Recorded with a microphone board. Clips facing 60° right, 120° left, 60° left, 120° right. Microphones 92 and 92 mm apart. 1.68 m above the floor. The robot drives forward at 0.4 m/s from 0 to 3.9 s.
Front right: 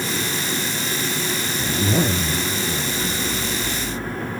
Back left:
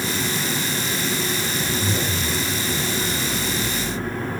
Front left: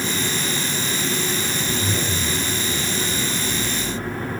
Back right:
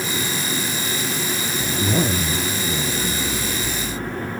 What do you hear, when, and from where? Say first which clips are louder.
1.6 s a zipper: front right 8 dB, back right 3 dB; 70° right, 0.5 m; by 4.3 s 145° right, 0.9 m